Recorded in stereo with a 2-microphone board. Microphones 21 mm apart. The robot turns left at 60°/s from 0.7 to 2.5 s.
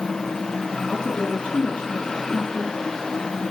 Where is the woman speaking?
120° left, 5 m; by 2.7 s 25° left, 5 m.